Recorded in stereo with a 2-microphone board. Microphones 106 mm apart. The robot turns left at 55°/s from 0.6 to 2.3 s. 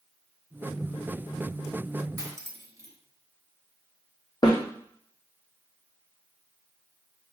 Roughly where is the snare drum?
Left.